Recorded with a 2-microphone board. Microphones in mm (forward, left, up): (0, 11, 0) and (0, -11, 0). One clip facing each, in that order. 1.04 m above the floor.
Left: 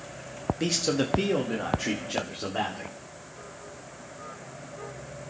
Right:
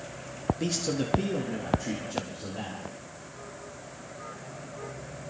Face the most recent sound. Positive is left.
turn(degrees=80)